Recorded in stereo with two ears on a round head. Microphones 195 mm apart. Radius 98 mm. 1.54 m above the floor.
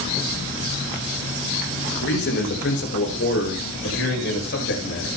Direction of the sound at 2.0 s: 50° left (ahead or behind).